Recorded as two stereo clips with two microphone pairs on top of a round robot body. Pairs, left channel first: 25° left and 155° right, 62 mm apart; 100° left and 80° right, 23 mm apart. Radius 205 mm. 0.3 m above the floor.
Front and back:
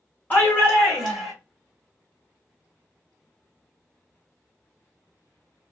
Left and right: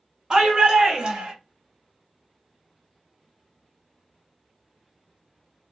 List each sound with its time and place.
0.3 s a shout: 35° right, 1.2 m; by 1.3 s 65° right, 1.9 m